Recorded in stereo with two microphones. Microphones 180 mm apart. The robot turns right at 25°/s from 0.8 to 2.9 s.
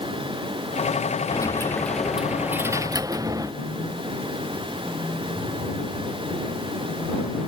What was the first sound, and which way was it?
A dropped coin, 160° left.